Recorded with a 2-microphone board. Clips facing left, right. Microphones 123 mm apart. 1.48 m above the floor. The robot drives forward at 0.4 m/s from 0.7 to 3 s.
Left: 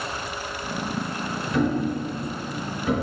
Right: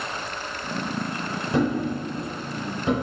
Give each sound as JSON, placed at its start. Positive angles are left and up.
{"t": 1.5, "sound": "a thud", "side_deg": -35, "distance_m": 1.9}